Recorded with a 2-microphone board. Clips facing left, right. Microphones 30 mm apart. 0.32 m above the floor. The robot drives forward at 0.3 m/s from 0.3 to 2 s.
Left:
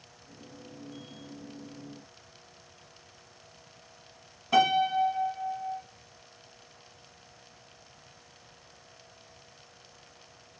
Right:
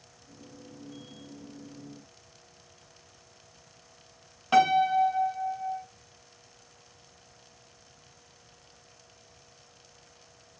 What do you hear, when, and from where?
4.5 s a piano: 55° right (ahead or behind), 2.0 m